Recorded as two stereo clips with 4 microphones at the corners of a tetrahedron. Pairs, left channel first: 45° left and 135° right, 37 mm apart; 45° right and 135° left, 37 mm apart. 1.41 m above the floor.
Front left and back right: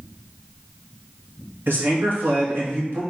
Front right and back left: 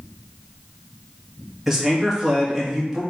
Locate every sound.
1.7 s a man speaking: 145° right, 1.5 m